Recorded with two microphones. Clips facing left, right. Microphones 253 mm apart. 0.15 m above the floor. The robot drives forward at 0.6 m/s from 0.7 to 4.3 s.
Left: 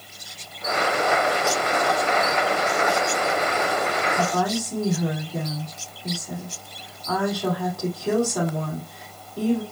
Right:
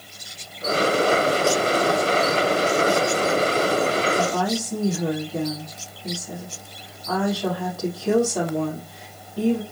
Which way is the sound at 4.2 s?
Centre (ahead or behind).